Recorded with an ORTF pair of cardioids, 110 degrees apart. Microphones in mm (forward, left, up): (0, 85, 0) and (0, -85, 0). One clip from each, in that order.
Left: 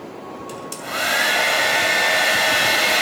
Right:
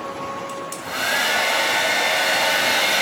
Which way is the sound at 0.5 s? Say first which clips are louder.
Even; 10° left.